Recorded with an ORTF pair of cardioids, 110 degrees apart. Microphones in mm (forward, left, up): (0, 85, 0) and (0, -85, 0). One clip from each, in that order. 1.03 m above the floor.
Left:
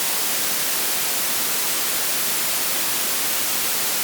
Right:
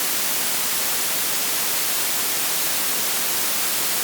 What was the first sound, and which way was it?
Only background noise.